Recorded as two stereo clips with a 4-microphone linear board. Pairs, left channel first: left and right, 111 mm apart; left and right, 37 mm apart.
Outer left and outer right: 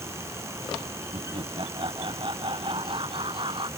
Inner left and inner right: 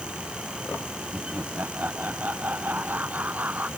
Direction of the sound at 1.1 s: 50° right (ahead or behind).